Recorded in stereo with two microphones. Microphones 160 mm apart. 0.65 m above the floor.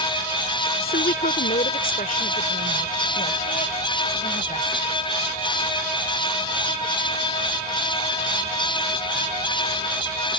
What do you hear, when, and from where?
0.8 s a woman speaking: 70° left (ahead or behind); by 4.8 s 40° left (ahead or behind)